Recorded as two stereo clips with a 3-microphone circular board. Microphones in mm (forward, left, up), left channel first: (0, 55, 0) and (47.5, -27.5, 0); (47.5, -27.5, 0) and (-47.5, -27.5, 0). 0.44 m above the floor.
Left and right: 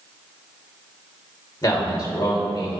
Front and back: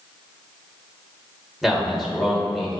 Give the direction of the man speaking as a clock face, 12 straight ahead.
9 o'clock.